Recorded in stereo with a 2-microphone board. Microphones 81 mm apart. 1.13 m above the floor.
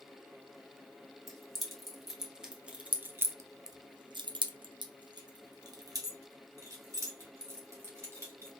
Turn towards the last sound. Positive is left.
turn(degrees=-35)  # may be behind; listen again after turning